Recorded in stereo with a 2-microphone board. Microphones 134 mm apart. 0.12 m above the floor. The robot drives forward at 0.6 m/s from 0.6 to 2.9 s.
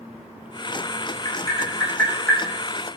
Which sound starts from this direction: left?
Tapping, at 1.2 s.